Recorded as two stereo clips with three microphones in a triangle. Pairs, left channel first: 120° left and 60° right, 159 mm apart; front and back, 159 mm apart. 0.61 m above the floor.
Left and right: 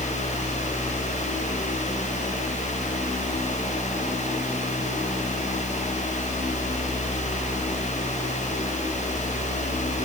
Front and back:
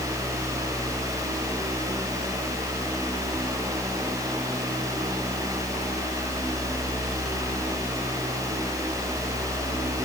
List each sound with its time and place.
Only background noise.